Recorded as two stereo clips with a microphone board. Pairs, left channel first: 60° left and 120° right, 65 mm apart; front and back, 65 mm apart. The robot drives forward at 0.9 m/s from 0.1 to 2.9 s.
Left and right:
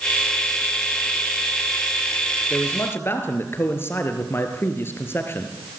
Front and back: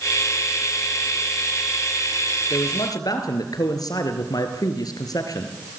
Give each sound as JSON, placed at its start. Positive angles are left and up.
{"t": 2.5, "sound": "a man speaking", "azimuth_deg": 5, "distance_m": 3.5}